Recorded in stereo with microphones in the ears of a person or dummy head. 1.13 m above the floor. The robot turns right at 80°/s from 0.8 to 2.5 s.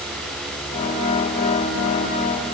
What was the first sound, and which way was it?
Only background noise.